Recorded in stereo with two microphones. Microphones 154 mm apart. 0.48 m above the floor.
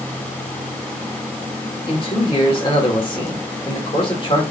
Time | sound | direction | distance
1.9 | a man speaking | 35° left (ahead or behind) | 1.5 m